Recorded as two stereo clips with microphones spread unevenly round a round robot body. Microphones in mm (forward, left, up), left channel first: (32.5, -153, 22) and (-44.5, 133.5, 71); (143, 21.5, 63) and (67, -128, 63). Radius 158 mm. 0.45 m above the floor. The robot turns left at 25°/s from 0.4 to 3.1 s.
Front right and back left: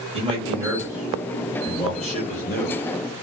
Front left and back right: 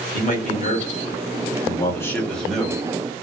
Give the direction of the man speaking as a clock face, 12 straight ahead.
11 o'clock.